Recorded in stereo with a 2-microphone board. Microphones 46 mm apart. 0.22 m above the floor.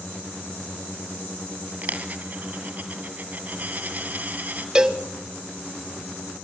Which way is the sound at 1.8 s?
35° right (ahead or behind).